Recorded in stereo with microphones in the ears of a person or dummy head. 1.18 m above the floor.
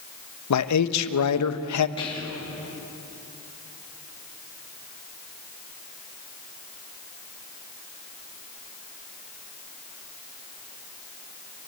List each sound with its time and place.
0.5 s a man speaking: 85° left, 1.1 m
2.0 s whispering: 25° left (ahead or behind), 3 m